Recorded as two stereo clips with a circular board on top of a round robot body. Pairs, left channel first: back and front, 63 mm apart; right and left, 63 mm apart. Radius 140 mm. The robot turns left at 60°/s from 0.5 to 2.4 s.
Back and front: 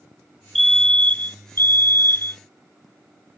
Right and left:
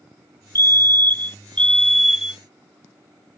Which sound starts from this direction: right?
A fire alarm, at 0.6 s.